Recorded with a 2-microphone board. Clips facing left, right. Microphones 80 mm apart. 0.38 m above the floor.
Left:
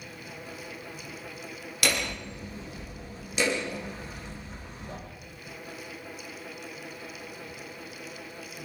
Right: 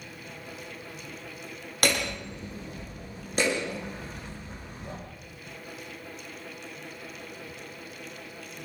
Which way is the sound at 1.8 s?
45° right (ahead or behind).